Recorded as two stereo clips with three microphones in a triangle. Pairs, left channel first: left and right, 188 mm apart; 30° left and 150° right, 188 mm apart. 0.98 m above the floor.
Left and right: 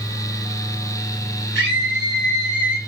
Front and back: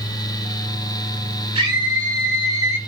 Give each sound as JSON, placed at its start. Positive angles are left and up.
{"t": 1.6, "sound": "a scream", "azimuth_deg": -85, "distance_m": 4.0}